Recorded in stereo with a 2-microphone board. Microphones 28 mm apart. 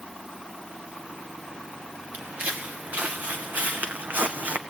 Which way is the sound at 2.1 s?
75° right (ahead or behind).